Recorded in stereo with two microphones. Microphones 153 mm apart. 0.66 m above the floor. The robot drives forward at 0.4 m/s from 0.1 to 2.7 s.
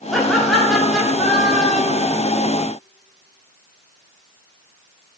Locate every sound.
0.1 s laughter: centre (ahead or behind), 1.4 m